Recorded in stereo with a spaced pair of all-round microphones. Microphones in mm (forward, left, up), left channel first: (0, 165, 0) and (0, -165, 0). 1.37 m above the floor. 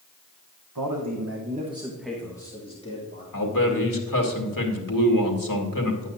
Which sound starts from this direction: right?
A man speaking, at 0.8 s.